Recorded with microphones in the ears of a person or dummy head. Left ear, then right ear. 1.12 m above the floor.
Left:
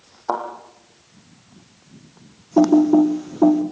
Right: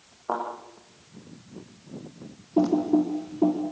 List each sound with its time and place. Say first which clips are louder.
0.3 s a thud: left 5 dB; 70° left (ahead or behind), 7 m
2.6 s typing on a keyboard: left 8 dB; 55° left (ahead or behind), 1.7 m